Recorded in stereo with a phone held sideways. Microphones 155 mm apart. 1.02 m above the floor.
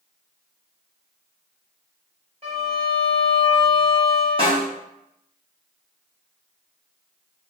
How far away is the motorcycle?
No motorcycle in this recording.